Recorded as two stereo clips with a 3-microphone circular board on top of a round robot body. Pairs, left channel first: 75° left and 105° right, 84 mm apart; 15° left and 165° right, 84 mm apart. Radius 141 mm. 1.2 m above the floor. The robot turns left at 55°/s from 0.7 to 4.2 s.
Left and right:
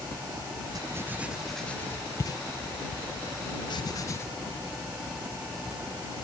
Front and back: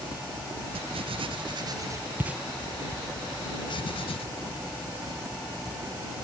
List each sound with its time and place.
0.8 s writing: 155° right; by 4.3 s 15° left